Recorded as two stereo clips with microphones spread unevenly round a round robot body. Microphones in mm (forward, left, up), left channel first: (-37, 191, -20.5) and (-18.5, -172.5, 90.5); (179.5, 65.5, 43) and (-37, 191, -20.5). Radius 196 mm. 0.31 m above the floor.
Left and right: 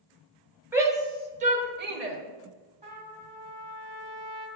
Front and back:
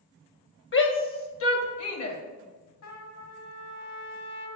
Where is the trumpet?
5° right, 2 m.